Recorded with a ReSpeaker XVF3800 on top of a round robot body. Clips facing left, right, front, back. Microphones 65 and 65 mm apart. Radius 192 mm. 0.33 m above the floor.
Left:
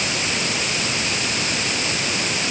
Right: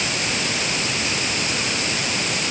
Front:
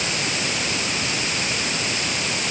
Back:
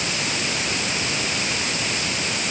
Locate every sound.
Only background noise.